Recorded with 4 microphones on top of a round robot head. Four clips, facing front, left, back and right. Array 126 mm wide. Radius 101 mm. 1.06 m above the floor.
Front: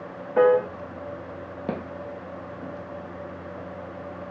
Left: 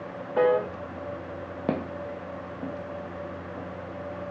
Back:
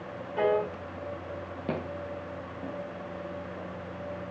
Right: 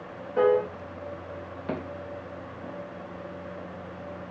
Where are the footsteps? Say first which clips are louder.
Left 4 dB, front 1 dB; 75° left, 1.7 m; by 3.7 s 90° left, 4.5 m.